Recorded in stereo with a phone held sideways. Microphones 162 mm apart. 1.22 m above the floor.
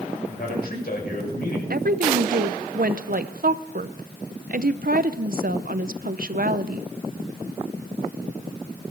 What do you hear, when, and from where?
0.3 s a man speaking: 70° left (ahead or behind), 6 m
1.7 s a woman speaking: 65° right (ahead or behind), 0.6 m